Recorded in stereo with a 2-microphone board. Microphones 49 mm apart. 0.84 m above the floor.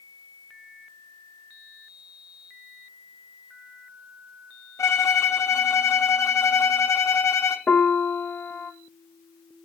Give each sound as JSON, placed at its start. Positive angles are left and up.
{"t": 4.8, "sound": "a violin", "side_deg": 70, "distance_m": 0.7}
{"t": 7.7, "sound": "a piano", "side_deg": 30, "distance_m": 0.5}